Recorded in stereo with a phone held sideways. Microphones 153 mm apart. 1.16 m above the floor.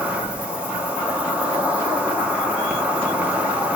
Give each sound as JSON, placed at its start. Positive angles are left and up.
{"t": 0.0, "sound": "an insect", "side_deg": -10, "distance_m": 1.0}